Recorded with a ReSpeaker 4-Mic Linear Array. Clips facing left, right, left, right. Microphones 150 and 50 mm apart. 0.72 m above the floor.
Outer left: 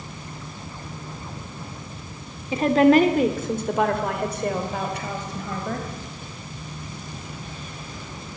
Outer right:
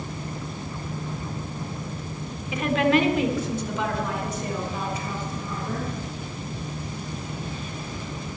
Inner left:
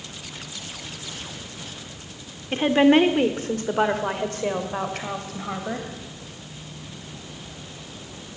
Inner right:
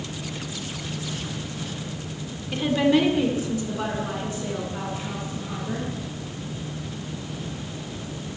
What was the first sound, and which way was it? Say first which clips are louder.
A woman speaking: outer left 6 dB, inner left 4 dB; 30° left (ahead or behind).